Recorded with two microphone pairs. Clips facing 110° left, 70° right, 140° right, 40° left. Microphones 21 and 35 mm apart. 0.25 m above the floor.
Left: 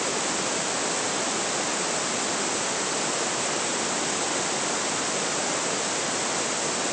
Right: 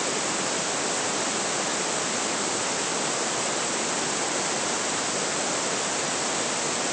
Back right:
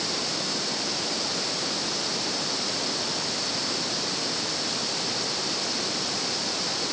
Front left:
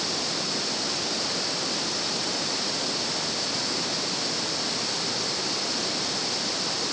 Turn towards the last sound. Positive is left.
No sound to turn to.